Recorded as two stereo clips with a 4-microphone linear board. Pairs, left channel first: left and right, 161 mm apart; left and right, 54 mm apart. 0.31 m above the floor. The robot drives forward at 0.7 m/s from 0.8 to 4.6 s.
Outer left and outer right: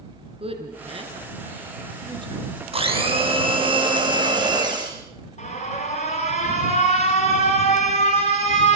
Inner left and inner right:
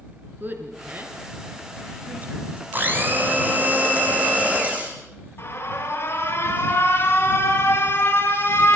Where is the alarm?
45° left (ahead or behind), 5.5 m.